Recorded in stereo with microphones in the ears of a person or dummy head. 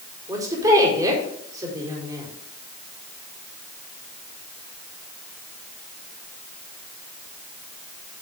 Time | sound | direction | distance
0.3 | a woman speaking | 25° right (ahead or behind) | 4 m